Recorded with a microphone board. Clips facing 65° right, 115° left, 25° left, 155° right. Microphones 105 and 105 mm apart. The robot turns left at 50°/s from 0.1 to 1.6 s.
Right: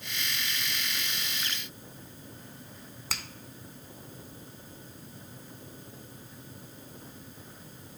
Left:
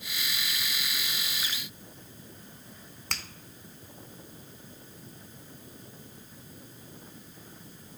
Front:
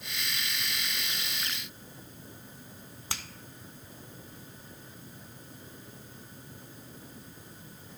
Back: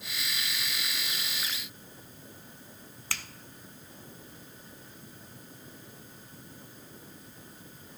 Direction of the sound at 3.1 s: 10° left.